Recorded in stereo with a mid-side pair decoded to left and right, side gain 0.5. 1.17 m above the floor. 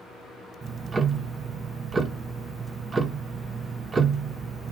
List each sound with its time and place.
0.6 s ticking: 30° right, 0.7 m